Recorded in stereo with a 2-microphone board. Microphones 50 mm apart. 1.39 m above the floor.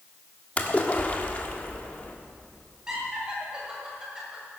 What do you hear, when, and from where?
0.6 s a splash: 30° left (ahead or behind), 1.5 m
2.9 s laughter: 15° right (ahead or behind), 7 m